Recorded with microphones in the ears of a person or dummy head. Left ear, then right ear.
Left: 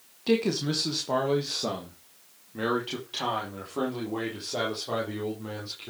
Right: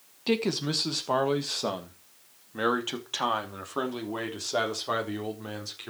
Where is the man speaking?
15° right (ahead or behind), 1.1 m; by 5.9 s 50° right (ahead or behind), 4.5 m.